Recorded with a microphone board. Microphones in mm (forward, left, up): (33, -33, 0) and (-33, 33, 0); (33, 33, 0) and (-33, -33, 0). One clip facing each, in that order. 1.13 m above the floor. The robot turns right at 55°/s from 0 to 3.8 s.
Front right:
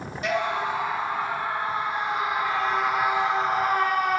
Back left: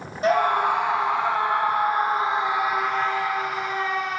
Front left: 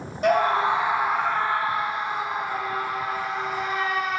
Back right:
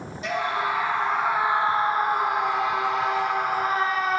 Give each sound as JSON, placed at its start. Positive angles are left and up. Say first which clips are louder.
{"t": 0.2, "sound": "a scream", "louder": "back left 6 dB, front left 6 dB", "azimuth_deg": 80, "distance_m": 0.9}